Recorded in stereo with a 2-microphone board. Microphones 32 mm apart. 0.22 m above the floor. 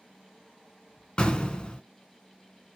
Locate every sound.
1.2 s an explosion: 35° left (ahead or behind), 0.7 m